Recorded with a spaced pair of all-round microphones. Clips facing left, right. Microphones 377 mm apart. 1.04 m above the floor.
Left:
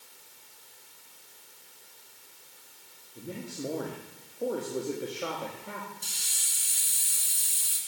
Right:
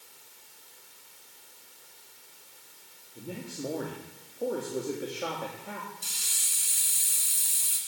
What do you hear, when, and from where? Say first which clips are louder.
3.1 s a man speaking: even; centre (ahead or behind), 2 m
6.0 s a hiss: even; 15° right (ahead or behind), 2.5 m